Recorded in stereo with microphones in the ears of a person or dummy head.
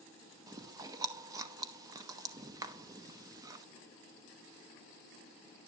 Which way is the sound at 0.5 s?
20° right (ahead or behind).